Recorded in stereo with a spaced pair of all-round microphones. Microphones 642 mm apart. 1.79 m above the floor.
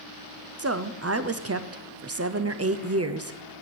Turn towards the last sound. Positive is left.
turn(degrees=-25)  # may be behind; listen again after turning